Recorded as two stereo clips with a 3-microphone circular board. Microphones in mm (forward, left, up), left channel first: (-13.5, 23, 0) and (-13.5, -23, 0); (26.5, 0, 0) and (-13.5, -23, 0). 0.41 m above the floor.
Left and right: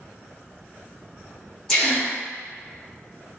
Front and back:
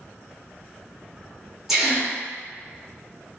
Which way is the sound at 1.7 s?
140° left.